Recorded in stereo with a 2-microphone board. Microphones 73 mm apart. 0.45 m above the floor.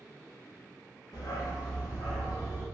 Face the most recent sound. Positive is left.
turn(degrees=80)